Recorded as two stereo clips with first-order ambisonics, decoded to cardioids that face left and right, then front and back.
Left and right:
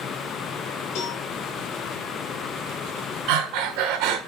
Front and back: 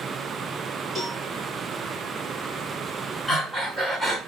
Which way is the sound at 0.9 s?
100° left.